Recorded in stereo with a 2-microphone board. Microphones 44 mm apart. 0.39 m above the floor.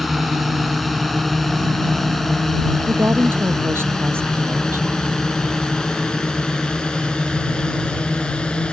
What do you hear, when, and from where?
0.0 s a drone: centre (ahead or behind); by 8.7 s 25° left (ahead or behind)
2.9 s a woman speaking: 60° right (ahead or behind)